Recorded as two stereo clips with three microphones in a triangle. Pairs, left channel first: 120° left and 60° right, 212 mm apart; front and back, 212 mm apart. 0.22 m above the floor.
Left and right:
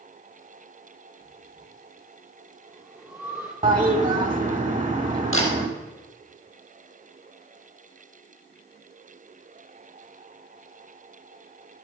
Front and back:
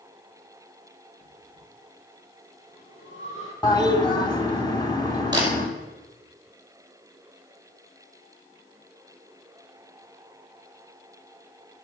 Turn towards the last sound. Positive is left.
turn(degrees=105)